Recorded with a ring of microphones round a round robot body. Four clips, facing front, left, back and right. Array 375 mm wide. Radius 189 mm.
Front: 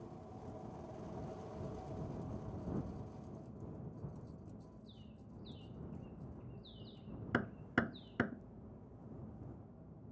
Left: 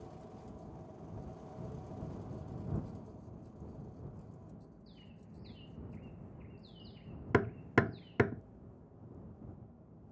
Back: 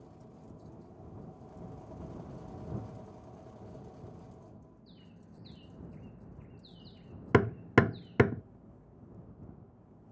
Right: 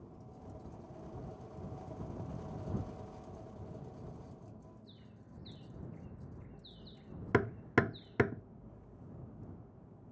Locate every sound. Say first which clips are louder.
4.9 s a bird: left 1 dB, back 1 dB; 165° left
7.3 s hammering: even, back 12 dB; straight behind